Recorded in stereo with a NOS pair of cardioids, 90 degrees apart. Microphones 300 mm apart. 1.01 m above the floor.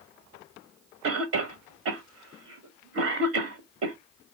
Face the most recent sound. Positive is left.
turn(degrees=-55)